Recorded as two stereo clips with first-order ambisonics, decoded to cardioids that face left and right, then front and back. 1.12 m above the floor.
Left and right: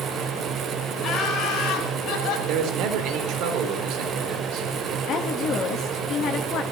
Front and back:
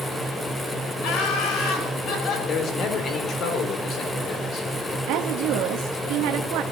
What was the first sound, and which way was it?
Laughter, 30° left.